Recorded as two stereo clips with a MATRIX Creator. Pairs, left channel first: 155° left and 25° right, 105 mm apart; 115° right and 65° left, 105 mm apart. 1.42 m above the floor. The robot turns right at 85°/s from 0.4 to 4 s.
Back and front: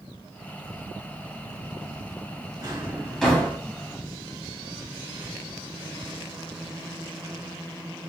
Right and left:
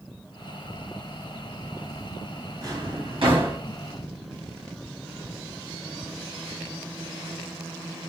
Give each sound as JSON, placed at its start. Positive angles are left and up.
{"t": 2.6, "sound": "a drawer", "azimuth_deg": 20, "distance_m": 1.1}